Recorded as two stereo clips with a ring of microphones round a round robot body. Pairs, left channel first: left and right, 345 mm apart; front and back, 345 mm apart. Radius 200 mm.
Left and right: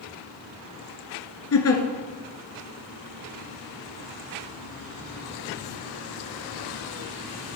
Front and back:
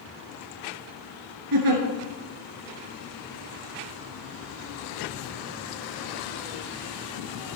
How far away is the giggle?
About 1.4 m.